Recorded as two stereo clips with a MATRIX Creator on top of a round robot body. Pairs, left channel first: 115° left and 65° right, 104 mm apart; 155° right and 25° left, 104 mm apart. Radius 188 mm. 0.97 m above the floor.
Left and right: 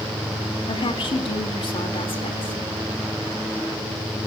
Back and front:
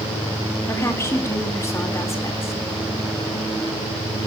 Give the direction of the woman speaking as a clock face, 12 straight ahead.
7 o'clock.